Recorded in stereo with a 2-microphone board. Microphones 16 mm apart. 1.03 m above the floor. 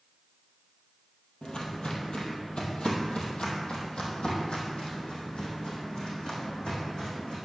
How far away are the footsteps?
About 1.9 m.